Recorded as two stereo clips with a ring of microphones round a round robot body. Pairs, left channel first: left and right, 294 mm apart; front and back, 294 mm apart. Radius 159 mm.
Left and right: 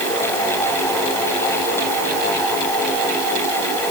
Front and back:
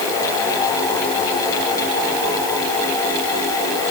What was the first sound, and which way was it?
Only background noise.